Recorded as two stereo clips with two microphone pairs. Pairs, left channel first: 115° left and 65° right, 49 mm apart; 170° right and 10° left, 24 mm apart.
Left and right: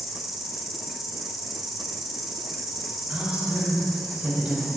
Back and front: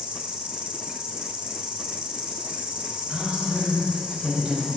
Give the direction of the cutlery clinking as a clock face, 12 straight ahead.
I don't hear cutlery clinking.